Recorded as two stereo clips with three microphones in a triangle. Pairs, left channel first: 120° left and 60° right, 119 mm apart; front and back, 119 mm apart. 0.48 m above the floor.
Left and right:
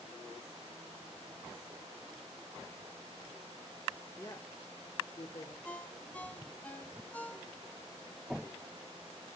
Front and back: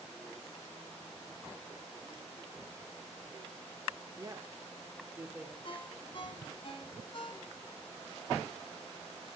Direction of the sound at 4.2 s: 165° left.